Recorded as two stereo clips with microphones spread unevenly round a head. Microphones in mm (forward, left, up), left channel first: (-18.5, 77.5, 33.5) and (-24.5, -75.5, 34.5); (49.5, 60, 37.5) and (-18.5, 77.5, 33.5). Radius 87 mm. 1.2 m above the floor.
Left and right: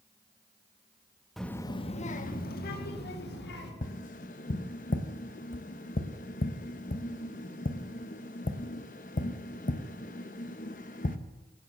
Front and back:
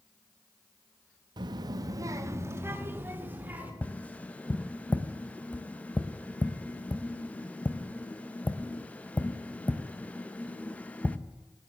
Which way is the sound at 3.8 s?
50° left.